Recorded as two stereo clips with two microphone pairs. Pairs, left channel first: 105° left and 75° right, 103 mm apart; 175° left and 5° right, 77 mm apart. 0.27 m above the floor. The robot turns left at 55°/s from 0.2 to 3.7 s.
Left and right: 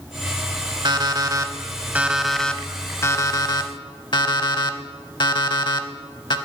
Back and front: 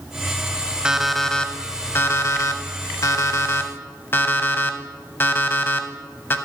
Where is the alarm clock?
80° right, 0.5 m; by 6.4 s 125° left, 0.5 m.